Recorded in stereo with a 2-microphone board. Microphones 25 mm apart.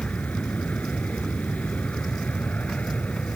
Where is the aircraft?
70° left (ahead or behind).